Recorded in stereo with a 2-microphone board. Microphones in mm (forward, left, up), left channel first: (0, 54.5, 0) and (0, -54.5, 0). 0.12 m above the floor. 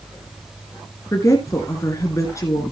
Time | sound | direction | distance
1.1 | a woman speaking | 30° left (ahead or behind) | 1.9 m